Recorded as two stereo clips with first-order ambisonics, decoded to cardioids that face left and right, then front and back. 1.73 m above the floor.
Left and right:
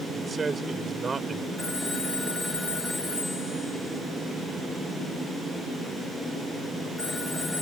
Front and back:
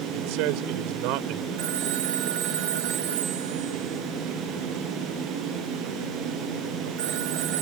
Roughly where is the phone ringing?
Behind.